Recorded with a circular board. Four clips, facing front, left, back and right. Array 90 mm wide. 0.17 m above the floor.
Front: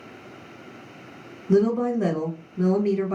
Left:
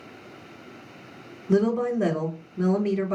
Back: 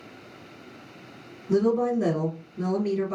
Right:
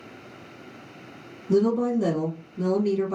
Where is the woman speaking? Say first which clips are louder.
Right 1 dB, front 2 dB; 65° left, 1.2 m.